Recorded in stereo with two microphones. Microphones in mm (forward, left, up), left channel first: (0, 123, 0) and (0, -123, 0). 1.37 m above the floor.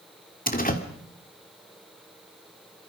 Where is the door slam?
35° left (ahead or behind), 2.5 m.